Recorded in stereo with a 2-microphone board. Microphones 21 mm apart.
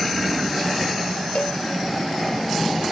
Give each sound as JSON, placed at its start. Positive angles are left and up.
{"t": 1.4, "sound": "a cowbell", "side_deg": 70}